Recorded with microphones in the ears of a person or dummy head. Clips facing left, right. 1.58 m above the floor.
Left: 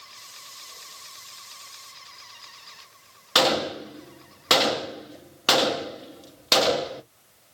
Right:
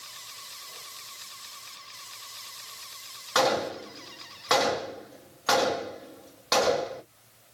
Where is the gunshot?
40° left (ahead or behind), 0.6 m.